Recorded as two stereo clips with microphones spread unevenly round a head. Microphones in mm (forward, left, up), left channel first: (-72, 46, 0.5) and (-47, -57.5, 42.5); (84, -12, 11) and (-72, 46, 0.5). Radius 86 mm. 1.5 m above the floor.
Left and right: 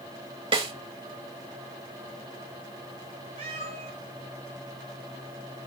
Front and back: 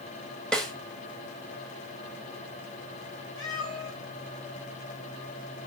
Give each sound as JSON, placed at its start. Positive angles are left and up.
{"t": 0.5, "sound": "a snare drum", "azimuth_deg": -105, "distance_m": 2.0}
{"t": 3.4, "sound": "a cat meowing", "azimuth_deg": -85, "distance_m": 6.5}